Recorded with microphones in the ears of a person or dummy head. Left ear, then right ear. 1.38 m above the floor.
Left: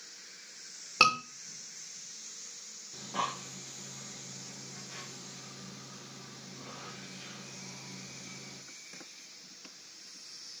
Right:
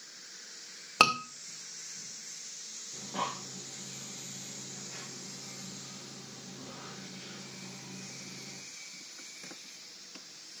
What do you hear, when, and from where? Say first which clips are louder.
1.0 s a scream: even; 25° right (ahead or behind), 2 m
2.9 s breathing: left 1 dB; 15° left (ahead or behind), 1.4 m